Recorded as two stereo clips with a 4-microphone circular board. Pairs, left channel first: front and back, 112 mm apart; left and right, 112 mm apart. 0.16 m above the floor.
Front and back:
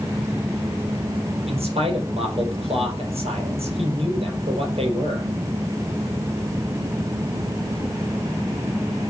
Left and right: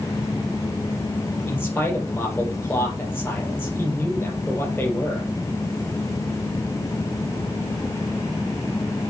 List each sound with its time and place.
1.5 s a man speaking: 160° left, 4 m